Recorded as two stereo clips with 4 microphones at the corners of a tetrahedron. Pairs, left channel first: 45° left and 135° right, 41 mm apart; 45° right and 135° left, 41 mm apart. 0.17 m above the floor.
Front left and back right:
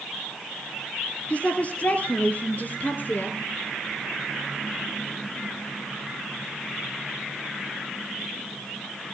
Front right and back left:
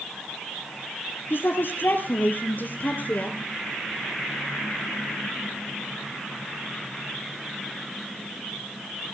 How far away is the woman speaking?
About 4 m.